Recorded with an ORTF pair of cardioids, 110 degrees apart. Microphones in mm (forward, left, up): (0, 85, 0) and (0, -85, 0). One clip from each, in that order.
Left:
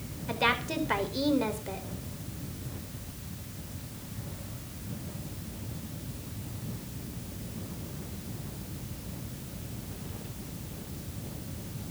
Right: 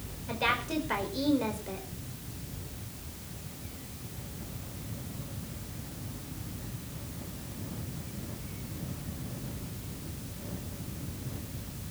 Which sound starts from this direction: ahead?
A woman speaking, at 0.3 s.